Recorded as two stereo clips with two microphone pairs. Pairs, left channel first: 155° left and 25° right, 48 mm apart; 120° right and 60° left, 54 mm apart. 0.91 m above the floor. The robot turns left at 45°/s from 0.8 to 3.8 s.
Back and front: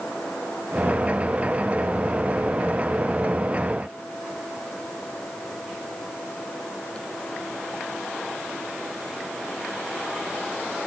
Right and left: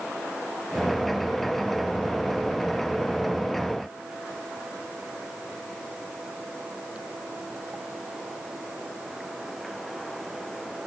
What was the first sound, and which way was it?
Only background noise.